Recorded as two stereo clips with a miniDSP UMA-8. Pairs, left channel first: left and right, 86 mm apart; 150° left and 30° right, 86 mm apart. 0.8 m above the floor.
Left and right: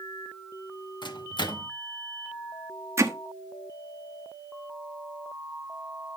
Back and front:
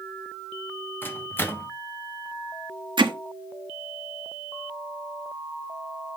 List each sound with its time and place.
1.0 s a microwave: 90° left, 1.0 m
3.0 s hammering: 35° right, 1.0 m